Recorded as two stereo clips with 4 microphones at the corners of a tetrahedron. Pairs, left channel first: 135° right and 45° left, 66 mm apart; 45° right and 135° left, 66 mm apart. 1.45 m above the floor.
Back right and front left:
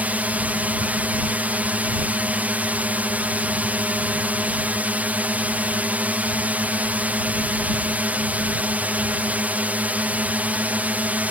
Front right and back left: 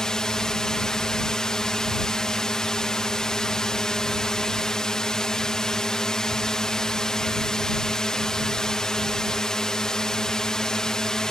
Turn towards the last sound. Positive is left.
turn(degrees=25)